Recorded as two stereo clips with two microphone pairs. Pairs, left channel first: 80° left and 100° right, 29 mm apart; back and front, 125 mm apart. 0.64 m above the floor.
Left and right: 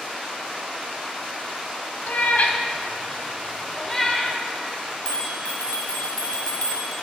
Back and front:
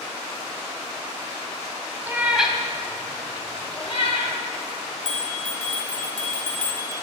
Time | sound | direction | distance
2.1 | a cat meowing | 75° left | 0.8 m
5.0 | a bell | 145° left | 1.1 m